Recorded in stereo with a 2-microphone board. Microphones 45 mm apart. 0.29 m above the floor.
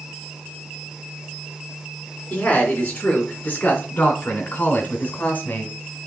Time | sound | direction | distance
2.3 | a woman speaking | 35° left (ahead or behind) | 3.5 m